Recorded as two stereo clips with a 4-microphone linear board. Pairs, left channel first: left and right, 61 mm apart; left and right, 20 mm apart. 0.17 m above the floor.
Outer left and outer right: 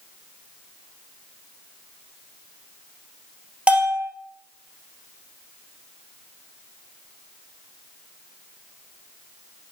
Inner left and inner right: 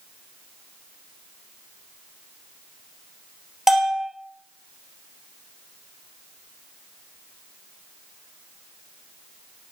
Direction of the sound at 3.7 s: 20° right (ahead or behind).